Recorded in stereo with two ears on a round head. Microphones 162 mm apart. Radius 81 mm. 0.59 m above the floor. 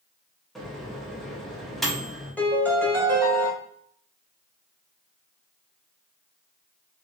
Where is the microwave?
Centre (ahead or behind), 0.8 m.